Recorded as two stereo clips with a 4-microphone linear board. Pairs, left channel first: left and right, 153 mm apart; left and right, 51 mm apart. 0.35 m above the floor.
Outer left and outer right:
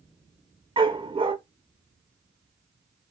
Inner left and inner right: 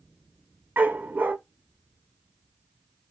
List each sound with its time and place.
0.8 s a dog barking: 35° right (ahead or behind), 0.7 m